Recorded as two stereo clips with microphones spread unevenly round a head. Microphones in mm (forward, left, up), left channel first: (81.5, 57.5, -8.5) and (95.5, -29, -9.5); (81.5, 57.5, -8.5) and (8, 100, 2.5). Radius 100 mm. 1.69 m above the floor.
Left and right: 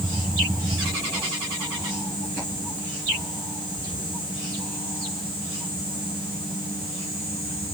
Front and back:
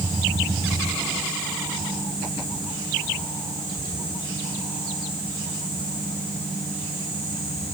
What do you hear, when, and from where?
Only background noise.